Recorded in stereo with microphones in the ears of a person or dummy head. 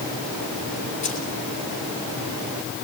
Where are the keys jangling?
35° left (ahead or behind), 3 m.